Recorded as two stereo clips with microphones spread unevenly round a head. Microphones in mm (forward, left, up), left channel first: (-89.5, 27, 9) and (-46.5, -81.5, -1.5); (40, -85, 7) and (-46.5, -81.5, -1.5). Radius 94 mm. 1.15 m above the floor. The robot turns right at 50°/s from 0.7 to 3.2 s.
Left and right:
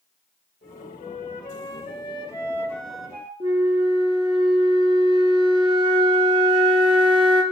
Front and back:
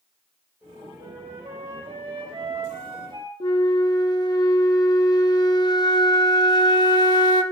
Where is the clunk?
No clunk in this recording.